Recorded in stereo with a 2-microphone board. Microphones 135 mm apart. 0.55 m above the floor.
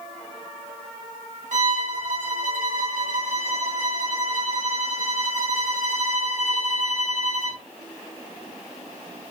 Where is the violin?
70° right (ahead or behind), 1.1 m.